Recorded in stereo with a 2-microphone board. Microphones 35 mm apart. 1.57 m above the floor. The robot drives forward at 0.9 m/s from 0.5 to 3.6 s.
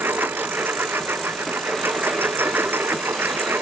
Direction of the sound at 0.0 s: 80° right.